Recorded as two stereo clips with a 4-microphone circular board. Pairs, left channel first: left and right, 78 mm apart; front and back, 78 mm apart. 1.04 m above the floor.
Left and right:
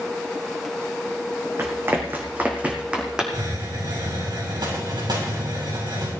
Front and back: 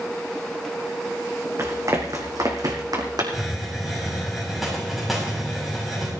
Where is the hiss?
95° right, 8 m.